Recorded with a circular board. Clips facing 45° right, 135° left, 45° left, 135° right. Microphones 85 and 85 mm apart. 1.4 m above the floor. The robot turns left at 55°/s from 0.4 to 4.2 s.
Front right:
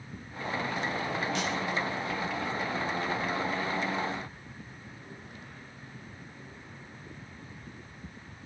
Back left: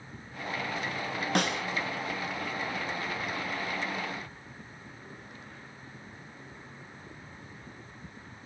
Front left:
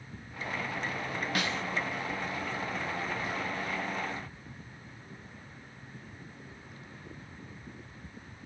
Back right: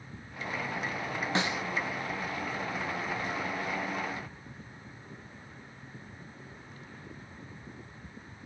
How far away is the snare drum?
About 0.6 m.